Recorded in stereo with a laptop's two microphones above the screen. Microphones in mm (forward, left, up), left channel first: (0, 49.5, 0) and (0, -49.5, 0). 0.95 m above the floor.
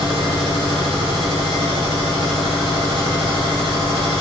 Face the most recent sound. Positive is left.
turn(degrees=-70)  # may be behind; listen again after turning